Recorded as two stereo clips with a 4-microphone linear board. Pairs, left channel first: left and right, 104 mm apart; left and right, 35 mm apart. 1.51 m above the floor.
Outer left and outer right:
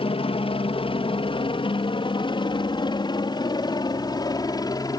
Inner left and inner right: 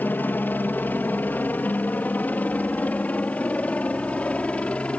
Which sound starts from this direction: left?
A helicopter, at 0.0 s.